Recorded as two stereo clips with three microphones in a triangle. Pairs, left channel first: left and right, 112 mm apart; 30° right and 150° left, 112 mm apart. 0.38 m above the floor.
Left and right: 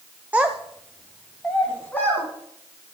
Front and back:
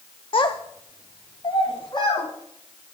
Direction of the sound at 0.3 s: 20° right.